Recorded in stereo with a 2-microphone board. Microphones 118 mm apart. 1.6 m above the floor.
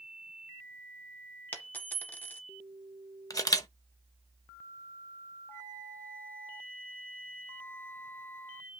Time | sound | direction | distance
1.5 | a dropped coin | 15° left (ahead or behind) | 0.9 m
3.3 | a camera shutter | 30° left (ahead or behind) | 0.9 m
5.5 | a flute | 15° left (ahead or behind) | 1.1 m